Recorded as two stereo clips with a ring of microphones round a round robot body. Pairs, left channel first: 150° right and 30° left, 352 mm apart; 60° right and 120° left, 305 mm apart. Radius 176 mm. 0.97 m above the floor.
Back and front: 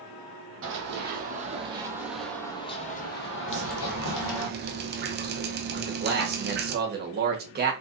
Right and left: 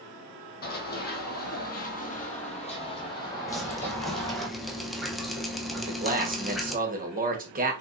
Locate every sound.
0.6 s running footsteps: 15° right, 1.4 m; by 4.5 s 150° right, 1.4 m
3.5 s dripping: 30° left, 0.6 m
5.8 s a man speaking: 75° left, 1.0 m